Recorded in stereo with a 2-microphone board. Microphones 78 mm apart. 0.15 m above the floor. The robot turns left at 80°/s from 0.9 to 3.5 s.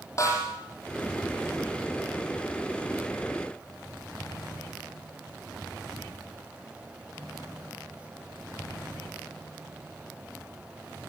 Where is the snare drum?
40° left (ahead or behind), 6 m.